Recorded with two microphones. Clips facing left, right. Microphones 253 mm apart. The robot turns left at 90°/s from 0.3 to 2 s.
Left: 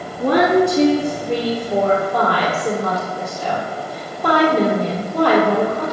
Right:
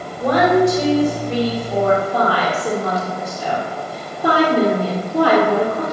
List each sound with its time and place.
0.2 s a woman speaking: 140° left, 4 m; by 5.8 s 10° right, 4 m